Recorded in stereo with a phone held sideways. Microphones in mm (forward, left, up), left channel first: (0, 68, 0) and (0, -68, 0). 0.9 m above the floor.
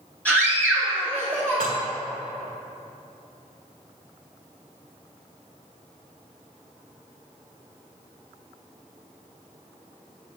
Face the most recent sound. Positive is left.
turn(degrees=-85)